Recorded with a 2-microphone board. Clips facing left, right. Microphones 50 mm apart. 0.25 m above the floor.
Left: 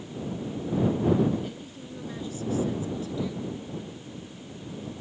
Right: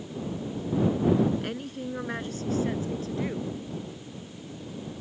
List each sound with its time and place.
1.4 s a woman speaking: 60° right (ahead or behind); by 3.6 s 45° right (ahead or behind)